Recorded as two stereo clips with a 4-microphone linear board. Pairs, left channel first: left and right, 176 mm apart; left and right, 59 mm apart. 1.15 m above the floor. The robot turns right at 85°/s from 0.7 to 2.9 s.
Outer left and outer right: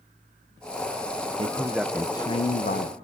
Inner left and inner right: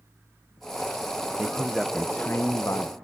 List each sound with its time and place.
1.4 s a man speaking: 40° right, 0.7 m; by 3.0 s 90° left, 0.7 m